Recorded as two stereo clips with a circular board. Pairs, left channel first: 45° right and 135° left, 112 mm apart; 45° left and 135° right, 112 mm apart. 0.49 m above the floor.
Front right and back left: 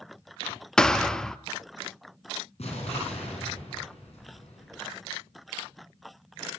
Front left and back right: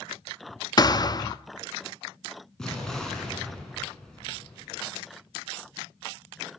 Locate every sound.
0.8 s a thud: 35° left, 0.5 m
2.6 s an explosion: 40° right, 5 m